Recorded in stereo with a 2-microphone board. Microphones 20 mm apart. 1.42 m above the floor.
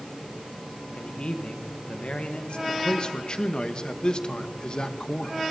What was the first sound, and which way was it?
A man speaking, 65° left (ahead or behind).